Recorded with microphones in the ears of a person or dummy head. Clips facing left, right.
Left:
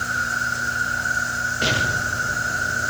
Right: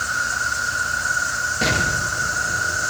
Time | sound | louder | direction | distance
0.0 | an insect | even | 65° right (ahead or behind) | 5 m
1.6 | an explosion | right 2 dB | 70° right (ahead or behind) | 6.5 m